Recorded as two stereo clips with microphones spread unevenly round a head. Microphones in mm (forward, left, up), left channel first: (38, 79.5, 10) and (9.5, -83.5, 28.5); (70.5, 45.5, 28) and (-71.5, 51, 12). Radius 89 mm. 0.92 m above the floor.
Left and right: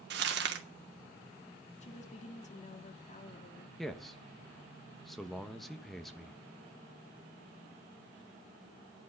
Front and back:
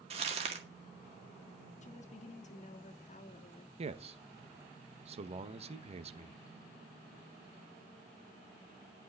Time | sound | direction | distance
0.1 | crumpling | 130° right | 1.8 m
1.8 | a woman speaking | 35° left | 1.7 m
3.8 | a man speaking | 165° left | 1.1 m